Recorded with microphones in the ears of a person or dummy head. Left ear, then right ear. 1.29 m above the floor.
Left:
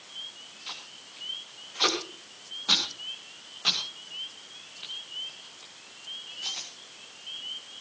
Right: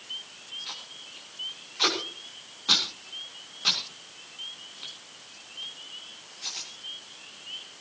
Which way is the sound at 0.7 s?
10° left (ahead or behind).